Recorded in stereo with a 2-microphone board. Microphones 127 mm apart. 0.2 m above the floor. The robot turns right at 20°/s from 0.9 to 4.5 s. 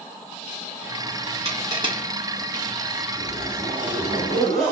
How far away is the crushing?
About 1.5 m.